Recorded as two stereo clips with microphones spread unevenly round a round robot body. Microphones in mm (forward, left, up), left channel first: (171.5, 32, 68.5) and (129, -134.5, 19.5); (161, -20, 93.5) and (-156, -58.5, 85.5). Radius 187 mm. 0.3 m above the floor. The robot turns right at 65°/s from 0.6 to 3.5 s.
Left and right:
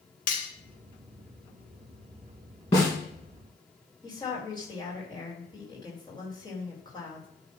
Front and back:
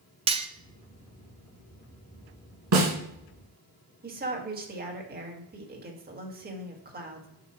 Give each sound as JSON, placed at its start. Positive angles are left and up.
{"t": 0.3, "sound": "cutlery clinking", "azimuth_deg": 120, "distance_m": 0.6}
{"t": 2.7, "sound": "a snare drum", "azimuth_deg": 145, "distance_m": 2.0}
{"t": 4.0, "sound": "a woman speaking", "azimuth_deg": 150, "distance_m": 1.6}